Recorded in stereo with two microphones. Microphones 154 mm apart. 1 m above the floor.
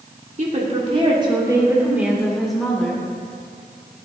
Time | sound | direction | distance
0.4 | a woman speaking | 50° right (ahead or behind) | 2.5 m